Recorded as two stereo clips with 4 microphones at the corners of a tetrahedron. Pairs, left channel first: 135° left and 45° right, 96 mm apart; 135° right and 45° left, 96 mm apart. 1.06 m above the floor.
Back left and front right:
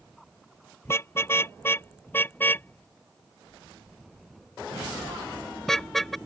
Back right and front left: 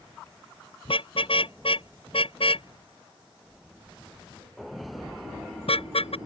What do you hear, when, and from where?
0.8 s a car horn: 160° right; by 6.2 s 135° right